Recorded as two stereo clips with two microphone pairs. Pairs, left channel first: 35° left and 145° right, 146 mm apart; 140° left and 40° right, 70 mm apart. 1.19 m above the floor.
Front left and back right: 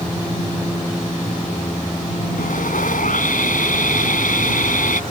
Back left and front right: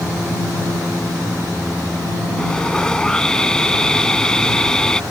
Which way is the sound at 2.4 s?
60° left.